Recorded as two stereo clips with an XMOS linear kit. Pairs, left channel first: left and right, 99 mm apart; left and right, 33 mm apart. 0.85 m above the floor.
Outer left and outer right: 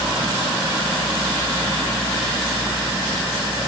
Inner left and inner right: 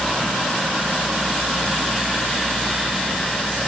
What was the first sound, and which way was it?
Only background noise.